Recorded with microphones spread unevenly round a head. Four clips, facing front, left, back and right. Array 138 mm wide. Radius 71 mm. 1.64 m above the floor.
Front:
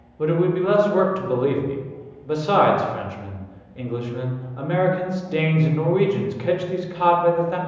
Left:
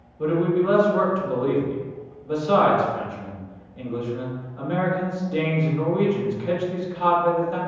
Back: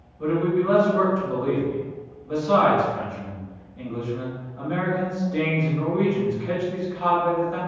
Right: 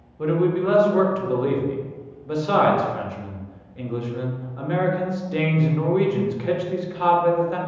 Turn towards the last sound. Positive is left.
turn(degrees=5)